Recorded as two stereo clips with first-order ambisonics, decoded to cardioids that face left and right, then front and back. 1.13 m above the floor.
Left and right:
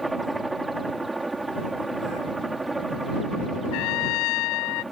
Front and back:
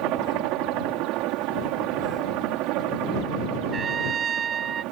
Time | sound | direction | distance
0.0 | a helicopter | 170° right | ?
3.7 | a trumpet | 115° left | ?